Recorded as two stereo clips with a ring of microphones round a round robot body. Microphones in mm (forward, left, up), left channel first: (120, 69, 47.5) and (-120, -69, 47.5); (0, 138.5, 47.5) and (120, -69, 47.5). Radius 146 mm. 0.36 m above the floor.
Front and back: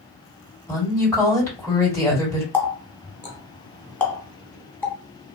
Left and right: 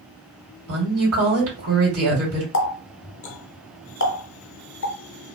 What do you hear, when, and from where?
0.7 s a woman speaking: 55° right, 2.5 m
2.5 s a running tap: 110° left, 1.0 m